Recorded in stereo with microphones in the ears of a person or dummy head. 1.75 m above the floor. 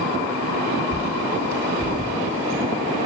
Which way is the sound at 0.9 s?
15° right (ahead or behind).